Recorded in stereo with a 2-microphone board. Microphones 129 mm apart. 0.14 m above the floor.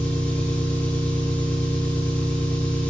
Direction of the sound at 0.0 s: 15° left (ahead or behind).